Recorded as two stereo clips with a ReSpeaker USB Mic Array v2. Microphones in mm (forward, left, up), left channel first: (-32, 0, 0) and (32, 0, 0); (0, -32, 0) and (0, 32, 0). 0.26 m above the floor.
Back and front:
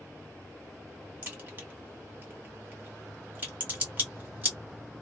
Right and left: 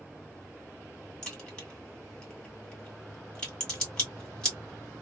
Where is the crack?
30° right, 1.7 m.